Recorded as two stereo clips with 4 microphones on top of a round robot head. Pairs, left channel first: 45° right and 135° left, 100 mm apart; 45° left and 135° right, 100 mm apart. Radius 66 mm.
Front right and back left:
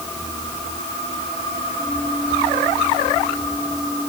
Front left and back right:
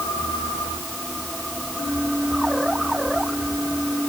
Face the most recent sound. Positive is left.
No sound to turn to.